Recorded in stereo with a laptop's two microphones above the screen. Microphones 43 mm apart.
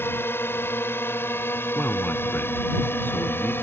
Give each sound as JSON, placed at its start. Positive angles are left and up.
{"t": 0.0, "sound": "a drone", "side_deg": 80}
{"t": 1.8, "sound": "a man speaking", "side_deg": 55}